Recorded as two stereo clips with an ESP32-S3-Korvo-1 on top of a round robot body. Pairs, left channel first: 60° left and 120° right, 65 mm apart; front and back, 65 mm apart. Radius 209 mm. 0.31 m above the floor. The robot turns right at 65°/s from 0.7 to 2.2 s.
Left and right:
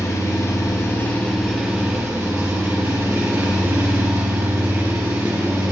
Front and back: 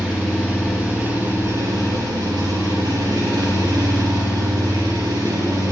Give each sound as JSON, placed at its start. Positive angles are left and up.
{"t": 0.0, "sound": "an engine running", "azimuth_deg": 105, "distance_m": 5.0}